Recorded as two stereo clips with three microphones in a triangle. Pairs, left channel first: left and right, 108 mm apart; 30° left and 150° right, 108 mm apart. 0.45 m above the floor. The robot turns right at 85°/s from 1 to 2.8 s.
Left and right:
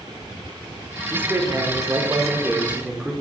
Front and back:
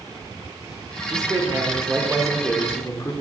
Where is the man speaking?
155° right, 0.8 m; by 3.1 s 15° right, 0.8 m.